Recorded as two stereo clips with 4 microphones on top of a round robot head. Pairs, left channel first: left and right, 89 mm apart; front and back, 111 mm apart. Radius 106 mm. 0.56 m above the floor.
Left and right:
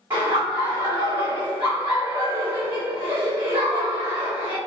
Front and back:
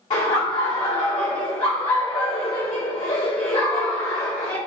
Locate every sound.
0.1 s laughter: 40° right, 1.3 m